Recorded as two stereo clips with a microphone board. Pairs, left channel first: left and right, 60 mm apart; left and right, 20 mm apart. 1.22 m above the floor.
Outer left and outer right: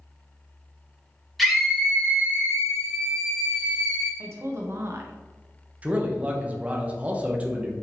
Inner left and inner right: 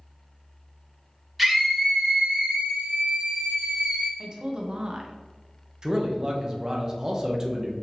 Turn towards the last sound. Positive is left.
turn(degrees=-25)  # may be behind; listen again after turning